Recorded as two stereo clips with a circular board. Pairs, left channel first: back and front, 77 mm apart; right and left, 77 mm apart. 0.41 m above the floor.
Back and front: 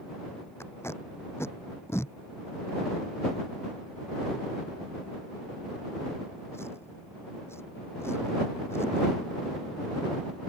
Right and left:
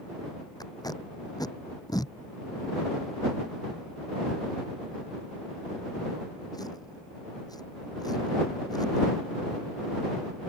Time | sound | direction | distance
0.6 | tape being pulled | 125° right | ?